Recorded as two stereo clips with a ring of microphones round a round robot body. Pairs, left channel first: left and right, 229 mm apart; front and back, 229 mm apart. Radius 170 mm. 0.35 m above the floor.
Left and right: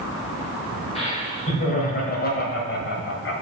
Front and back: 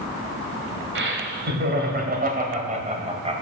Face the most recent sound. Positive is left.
turn(degrees=115)